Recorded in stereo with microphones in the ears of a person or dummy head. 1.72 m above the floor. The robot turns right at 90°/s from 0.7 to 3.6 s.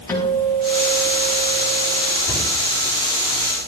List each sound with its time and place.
0.1 s a guitar: 15° left, 5 m; by 2.1 s 145° left, 5 m
2.3 s a cupboard door: 20° left (ahead or behind), 6.5 m; by 2.5 s 5° left (ahead or behind), 6.5 m